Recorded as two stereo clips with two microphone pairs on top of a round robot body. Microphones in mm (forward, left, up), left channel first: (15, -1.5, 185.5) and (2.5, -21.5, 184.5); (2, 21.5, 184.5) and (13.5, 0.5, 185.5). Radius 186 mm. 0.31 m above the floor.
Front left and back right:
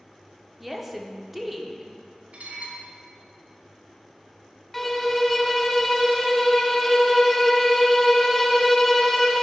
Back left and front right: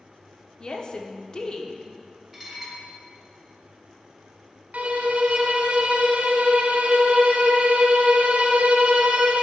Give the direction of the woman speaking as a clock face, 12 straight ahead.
7 o'clock.